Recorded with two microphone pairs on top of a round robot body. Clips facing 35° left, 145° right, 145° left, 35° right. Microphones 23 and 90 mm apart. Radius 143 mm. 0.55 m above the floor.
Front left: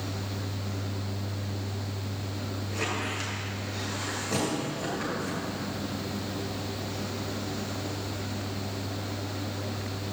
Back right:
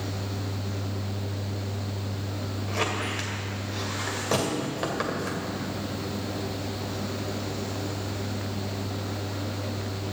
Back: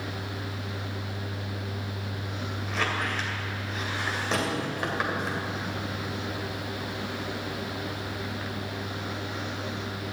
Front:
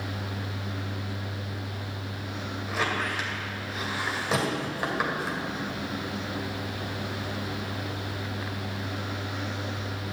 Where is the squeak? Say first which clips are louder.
Back right 3 dB, front 1 dB; 115° right, 2.5 m.